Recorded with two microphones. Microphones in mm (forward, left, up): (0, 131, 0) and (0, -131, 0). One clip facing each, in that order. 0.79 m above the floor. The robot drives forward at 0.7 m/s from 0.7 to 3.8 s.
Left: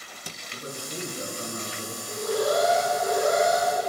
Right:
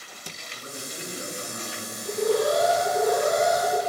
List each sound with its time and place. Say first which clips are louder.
0.5 s a man speaking: left 4 dB; 40° left (ahead or behind), 9.5 m; by 1.9 s 45° left (ahead or behind), 8.5 m
2.0 s an alarm: right 3 dB; 70° right (ahead or behind), 3.5 m; by 3.8 s 60° right (ahead or behind), 4 m